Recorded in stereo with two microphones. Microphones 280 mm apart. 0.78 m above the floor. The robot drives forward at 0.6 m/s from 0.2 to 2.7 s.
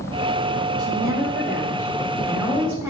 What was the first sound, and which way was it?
A woman speaking, 15° right (ahead or behind).